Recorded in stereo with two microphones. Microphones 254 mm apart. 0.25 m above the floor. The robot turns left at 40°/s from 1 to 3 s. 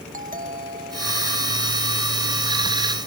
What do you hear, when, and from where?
0.1 s a doorbell: 30° right; by 2.0 s 75° right